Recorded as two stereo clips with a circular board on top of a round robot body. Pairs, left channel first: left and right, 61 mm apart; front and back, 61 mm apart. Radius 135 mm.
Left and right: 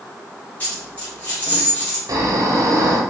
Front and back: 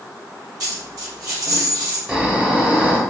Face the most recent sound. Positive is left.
turn(degrees=-105)